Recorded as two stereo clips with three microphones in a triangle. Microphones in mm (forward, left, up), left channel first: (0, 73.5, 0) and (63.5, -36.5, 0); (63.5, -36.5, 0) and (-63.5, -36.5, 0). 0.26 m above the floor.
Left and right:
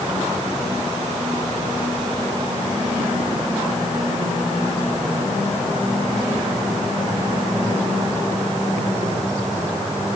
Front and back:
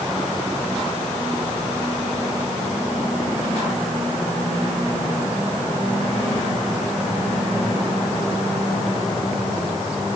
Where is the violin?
No violin in this recording.